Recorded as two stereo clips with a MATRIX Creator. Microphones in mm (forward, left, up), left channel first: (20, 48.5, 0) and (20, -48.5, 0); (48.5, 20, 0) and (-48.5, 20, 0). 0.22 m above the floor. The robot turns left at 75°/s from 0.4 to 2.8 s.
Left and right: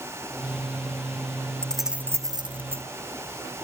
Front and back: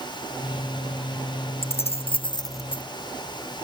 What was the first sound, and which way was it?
Keys jangling, 15° left.